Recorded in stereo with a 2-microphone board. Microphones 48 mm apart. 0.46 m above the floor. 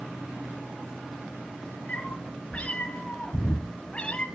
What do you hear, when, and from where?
1.9 s a cat meowing: 25° left (ahead or behind), 4 m; by 4.3 s 20° left (ahead or behind), 2.5 m